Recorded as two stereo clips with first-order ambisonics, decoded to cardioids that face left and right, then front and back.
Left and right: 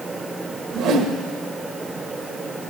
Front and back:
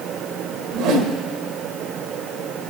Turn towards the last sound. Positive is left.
turn(degrees=-145)